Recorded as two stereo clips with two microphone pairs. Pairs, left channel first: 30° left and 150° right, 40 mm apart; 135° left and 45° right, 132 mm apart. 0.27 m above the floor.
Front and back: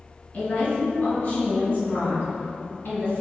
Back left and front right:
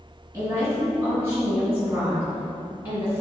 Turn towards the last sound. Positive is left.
turn(degrees=30)